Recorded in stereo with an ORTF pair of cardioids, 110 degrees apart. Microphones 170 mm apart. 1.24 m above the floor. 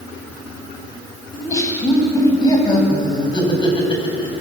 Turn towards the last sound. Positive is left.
turn(degrees=30)